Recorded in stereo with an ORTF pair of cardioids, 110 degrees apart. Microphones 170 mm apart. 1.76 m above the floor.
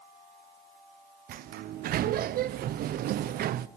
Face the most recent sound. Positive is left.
turn(degrees=-65)